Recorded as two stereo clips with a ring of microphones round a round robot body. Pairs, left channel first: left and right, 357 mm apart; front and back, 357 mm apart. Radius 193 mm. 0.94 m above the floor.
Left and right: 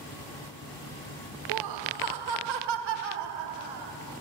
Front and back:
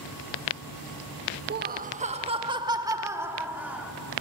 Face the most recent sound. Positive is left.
turn(degrees=-95)